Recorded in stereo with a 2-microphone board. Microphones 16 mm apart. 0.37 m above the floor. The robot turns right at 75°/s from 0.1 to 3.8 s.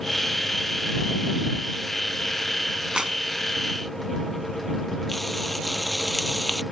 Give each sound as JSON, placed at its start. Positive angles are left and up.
{"t": 3.0, "sound": "a clap", "side_deg": -60}
{"t": 5.1, "sound": "frying", "side_deg": 5}